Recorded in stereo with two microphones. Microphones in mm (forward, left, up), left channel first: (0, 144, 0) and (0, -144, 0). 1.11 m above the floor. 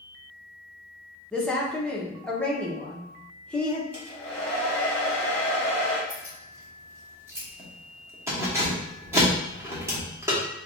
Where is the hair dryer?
5° left (ahead or behind), 1.5 m.